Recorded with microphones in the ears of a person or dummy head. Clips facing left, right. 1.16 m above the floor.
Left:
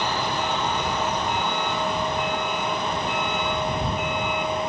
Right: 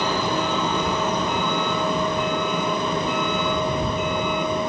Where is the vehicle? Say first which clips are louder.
Right 3 dB; 70° right (ahead or behind); by 4.7 s 80° right.